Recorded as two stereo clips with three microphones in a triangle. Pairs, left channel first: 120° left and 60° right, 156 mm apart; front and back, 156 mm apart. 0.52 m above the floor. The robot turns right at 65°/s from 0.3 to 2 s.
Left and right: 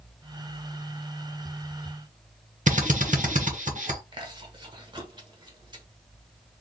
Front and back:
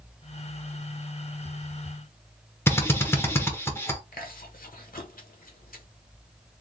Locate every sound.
2.7 s a drill: 70° right, 1.2 m
4.1 s chewing: straight ahead, 1.2 m